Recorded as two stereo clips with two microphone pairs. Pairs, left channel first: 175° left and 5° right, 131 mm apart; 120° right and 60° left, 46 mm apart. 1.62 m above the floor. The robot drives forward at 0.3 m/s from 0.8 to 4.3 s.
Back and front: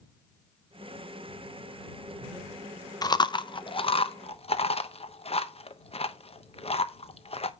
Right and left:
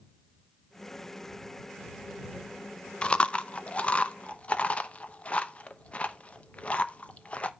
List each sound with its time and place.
3.0 s chewing: 165° right, 0.8 m; by 7.5 s 170° right, 1.0 m